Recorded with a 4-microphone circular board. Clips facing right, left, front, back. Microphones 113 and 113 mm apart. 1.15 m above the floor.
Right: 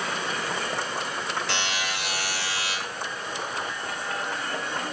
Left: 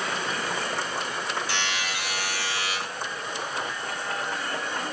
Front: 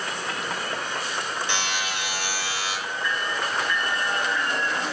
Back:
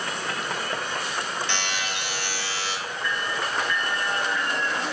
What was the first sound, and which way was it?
A buzzer, 75° right.